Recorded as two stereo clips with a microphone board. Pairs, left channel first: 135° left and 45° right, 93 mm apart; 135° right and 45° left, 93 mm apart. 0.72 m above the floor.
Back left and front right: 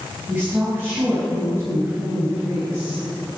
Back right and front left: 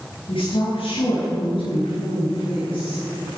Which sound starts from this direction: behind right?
A woman speaking, at 0.3 s.